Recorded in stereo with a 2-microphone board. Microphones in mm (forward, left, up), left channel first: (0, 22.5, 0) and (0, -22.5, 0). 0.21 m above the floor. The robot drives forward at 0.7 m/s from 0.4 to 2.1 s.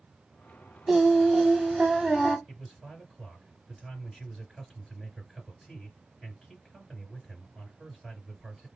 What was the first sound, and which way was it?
Singing, 10° right (ahead or behind).